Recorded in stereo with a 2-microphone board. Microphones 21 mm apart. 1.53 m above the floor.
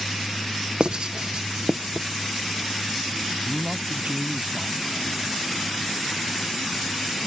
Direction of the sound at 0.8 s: 50° right (ahead or behind).